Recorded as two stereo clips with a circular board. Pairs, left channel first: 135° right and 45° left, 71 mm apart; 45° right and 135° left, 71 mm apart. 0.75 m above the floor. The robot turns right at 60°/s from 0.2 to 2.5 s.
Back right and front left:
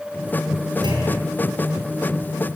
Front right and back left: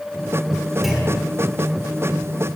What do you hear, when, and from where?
0.8 s a clunk: 45° left, 9 m; by 1.3 s 70° left, 9 m